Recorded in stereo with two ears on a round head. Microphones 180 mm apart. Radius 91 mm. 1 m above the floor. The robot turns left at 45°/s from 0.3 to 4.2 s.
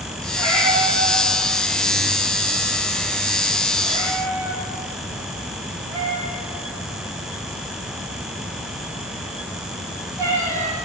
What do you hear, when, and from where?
0.3 s a cat meowing: 10° left (ahead or behind), 8 m; by 10.8 s 15° right (ahead or behind), 8 m